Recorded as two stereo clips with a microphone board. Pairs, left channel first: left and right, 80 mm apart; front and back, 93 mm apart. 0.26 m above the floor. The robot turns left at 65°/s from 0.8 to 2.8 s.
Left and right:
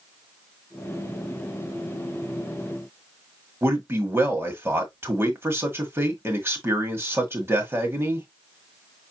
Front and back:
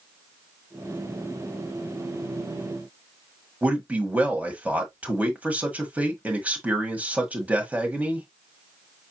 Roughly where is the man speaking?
Behind right.